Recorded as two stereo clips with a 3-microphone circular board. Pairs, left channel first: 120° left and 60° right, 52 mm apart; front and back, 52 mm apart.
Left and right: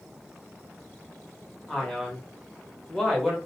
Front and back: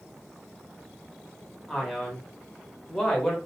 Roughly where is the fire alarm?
I don't hear a fire alarm.